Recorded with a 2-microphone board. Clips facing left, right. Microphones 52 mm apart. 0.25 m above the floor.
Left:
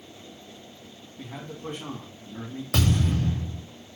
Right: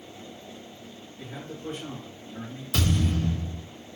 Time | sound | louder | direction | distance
1.2 | a man speaking | left 1 dB | 55° left (ahead or behind) | 2.0 m
2.7 | a thud | left 1 dB | 75° left (ahead or behind) | 3.5 m